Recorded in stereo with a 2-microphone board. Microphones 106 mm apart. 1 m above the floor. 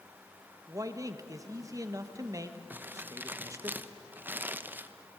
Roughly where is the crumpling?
Centre.